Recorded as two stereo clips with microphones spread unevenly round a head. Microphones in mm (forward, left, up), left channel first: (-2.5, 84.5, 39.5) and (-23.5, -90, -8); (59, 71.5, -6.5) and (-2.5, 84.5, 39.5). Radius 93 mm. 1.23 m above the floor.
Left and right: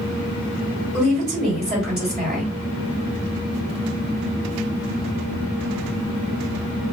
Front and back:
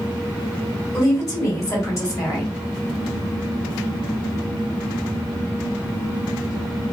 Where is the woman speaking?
15° right, 1.7 m.